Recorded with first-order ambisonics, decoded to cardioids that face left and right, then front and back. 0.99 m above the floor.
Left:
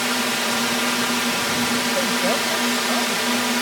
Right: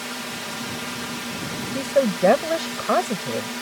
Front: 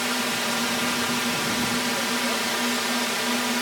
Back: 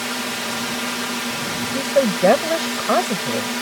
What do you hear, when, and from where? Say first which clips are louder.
0.0 s a drone: left 9 dB, even; 90° left
1.7 s a woman speaking: left 1 dB, back 6 dB; 155° right